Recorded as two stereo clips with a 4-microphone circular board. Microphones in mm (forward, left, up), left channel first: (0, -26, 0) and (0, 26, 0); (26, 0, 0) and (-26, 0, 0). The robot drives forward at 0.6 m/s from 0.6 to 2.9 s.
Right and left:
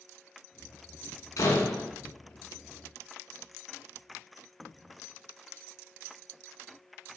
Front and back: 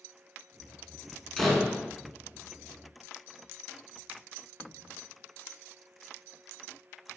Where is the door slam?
85° right, 1.8 m; by 1.9 s 95° right, 1.8 m.